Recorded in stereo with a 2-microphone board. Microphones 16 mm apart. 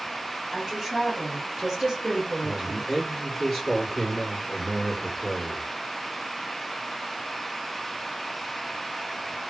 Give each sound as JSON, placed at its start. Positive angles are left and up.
{"t": 0.5, "sound": "a woman speaking", "side_deg": -25, "distance_m": 1.6}
{"t": 2.4, "sound": "a man speaking", "side_deg": 0, "distance_m": 1.6}